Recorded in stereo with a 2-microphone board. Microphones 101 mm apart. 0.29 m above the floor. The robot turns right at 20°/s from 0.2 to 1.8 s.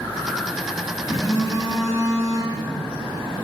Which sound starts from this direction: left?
A phone buzzing, at 1.1 s.